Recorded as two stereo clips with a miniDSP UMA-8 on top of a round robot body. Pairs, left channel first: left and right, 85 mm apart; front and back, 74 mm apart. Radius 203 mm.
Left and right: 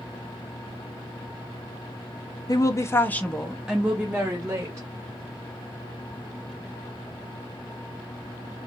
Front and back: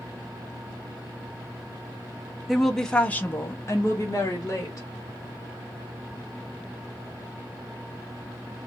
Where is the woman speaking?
90° left, 1.3 m; by 4.9 s 40° right, 1.9 m.